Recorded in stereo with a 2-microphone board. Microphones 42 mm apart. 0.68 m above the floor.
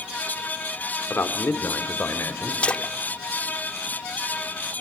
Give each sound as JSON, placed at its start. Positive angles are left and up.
{"t": 1.1, "sound": "a man speaking", "side_deg": 65, "distance_m": 2.0}
{"t": 2.6, "sound": "a splash", "side_deg": 30, "distance_m": 1.0}